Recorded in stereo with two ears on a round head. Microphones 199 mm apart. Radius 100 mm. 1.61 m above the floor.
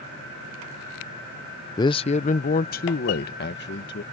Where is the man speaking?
15° left (ahead or behind); by 4.0 s 45° left (ahead or behind).